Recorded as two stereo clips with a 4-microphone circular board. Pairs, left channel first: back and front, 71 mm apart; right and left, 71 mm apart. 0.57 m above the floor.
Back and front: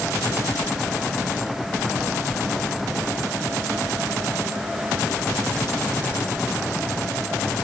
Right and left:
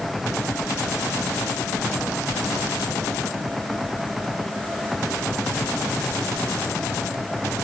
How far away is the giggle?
I don't hear a giggle.